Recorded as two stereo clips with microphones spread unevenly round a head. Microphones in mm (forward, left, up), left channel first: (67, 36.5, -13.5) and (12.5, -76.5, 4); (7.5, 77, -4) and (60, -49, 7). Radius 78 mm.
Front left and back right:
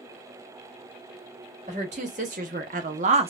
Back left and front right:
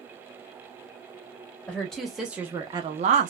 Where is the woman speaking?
165° right, 1.3 m; by 3.3 s 80° right, 0.6 m.